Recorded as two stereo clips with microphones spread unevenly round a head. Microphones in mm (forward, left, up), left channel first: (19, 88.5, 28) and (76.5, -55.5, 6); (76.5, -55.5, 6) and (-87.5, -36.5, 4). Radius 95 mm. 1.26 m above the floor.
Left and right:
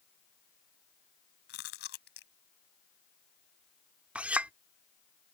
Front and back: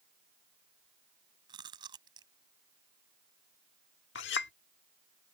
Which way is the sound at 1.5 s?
105° left.